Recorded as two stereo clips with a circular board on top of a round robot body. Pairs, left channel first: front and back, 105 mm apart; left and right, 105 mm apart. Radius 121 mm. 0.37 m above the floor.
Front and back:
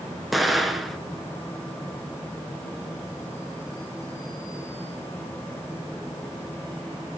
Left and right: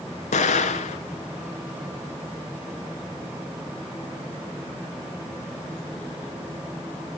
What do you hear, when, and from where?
0.3 s an explosion: 90° left, 1.3 m